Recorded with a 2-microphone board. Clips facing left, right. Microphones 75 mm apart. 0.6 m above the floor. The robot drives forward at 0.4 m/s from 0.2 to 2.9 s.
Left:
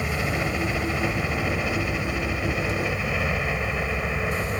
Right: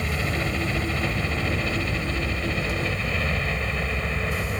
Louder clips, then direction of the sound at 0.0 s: Left 1 dB; 10° left (ahead or behind).